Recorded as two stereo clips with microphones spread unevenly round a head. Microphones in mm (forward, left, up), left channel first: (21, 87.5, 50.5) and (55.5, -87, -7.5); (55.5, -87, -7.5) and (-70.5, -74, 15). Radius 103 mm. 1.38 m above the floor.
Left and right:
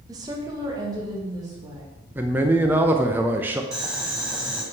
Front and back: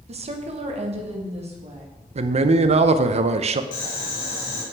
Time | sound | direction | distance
0.1 | a woman speaking | 150° right | 1.0 m
2.1 | a man speaking | 165° right | 0.7 m
3.7 | boiling | 15° left | 2.5 m